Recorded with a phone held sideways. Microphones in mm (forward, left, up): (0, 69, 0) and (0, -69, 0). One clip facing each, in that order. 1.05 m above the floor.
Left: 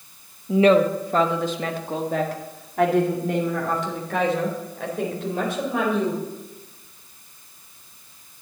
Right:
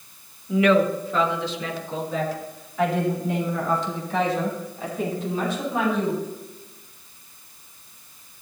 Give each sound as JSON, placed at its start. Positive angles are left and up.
{"t": 0.5, "sound": "a woman speaking", "side_deg": 30, "distance_m": 0.9}